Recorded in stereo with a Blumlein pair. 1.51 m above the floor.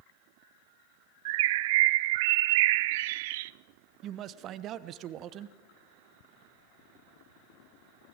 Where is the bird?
50° right, 0.6 m.